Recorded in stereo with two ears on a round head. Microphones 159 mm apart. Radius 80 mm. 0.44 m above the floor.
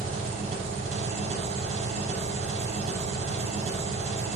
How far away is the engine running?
About 0.9 m.